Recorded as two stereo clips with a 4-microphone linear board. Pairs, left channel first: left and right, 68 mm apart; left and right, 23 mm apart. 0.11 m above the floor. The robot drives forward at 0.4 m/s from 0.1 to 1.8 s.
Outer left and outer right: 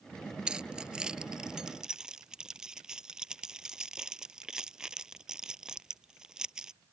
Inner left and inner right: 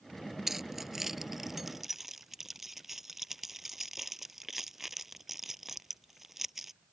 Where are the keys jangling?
15° right (ahead or behind); by 6.7 s 10° right (ahead or behind).